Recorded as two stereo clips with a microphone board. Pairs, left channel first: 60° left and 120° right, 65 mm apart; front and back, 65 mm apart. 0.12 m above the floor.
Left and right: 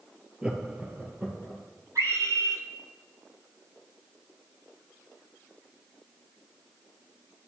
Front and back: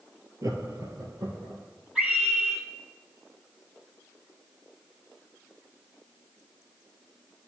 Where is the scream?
100° right, 3.5 m.